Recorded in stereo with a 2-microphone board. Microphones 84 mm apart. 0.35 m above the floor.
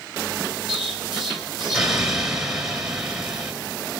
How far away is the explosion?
About 1.8 m.